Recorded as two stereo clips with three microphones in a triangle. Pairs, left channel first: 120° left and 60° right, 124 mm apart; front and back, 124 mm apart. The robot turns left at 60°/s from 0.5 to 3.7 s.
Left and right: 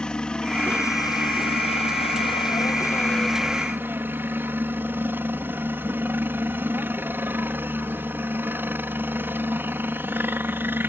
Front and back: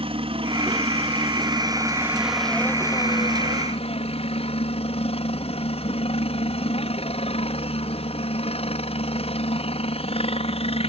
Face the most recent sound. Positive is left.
turn(degrees=10)